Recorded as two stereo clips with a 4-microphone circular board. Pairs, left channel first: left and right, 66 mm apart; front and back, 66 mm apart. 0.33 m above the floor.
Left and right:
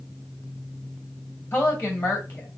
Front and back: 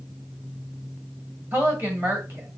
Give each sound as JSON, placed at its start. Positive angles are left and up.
{"t": 1.5, "sound": "a woman speaking", "azimuth_deg": 140, "distance_m": 1.8}